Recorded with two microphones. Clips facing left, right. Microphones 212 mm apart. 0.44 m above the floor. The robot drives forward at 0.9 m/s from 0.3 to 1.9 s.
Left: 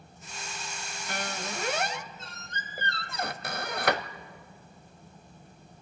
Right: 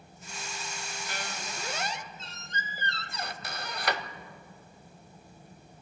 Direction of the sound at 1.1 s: 55° left (ahead or behind).